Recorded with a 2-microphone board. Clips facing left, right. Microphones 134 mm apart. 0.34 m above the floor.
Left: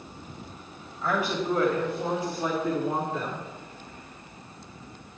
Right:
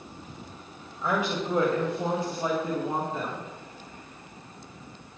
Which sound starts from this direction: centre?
A woman speaking, at 1.0 s.